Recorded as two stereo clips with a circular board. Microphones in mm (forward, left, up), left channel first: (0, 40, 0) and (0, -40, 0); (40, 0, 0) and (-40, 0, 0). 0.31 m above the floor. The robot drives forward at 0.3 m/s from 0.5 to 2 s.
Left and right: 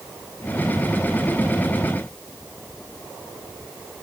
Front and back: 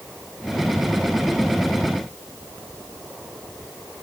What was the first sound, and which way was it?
Only background noise.